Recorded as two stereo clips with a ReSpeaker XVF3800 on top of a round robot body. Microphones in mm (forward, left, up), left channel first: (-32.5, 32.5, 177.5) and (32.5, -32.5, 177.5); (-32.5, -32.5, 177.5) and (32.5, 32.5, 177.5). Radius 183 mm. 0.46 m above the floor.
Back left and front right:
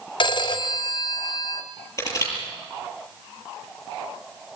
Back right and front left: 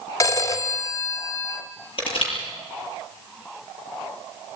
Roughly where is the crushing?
Behind.